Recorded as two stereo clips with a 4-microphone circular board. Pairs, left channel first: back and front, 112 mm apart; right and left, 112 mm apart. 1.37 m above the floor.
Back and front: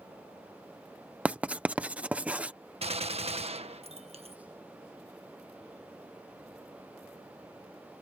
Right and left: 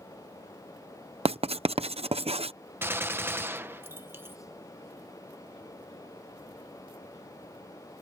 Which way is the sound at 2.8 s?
20° left.